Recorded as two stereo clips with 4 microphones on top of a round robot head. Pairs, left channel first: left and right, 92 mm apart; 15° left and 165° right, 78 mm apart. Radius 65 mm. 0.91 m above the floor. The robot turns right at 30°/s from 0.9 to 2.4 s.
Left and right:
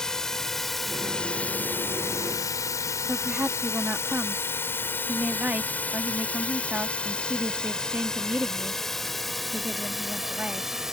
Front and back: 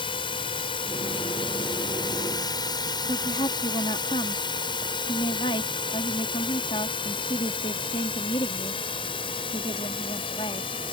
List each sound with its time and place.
0.0 s a drone: 5° left; by 10.9 s 5° right
3.0 s a woman speaking: 15° right